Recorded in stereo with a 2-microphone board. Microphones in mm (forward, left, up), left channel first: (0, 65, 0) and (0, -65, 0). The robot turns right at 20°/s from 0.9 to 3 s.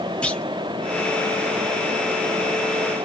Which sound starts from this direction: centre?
A clunk, at 0.2 s.